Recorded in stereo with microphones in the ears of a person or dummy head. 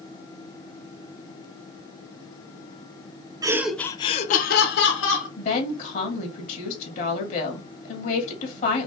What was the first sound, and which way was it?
Laughter, 15° right (ahead or behind).